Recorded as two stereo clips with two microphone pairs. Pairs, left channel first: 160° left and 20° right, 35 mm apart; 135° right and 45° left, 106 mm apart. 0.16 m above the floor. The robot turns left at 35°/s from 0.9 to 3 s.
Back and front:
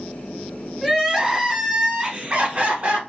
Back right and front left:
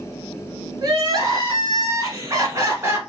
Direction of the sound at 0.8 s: 65° left.